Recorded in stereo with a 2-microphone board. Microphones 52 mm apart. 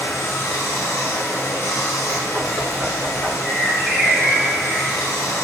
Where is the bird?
10° right (ahead or behind), 2.0 m.